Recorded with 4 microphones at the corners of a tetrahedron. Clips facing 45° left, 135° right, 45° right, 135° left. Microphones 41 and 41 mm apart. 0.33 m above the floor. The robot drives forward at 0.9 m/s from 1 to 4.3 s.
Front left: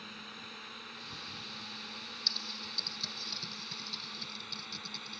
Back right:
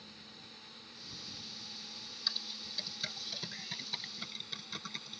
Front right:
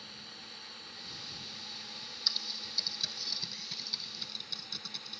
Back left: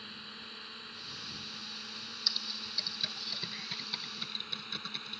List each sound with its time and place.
0.0 s a drone: 75° left; by 5.2 s 90° left
2.3 s typing on a keyboard: 140° right; by 5.2 s 170° right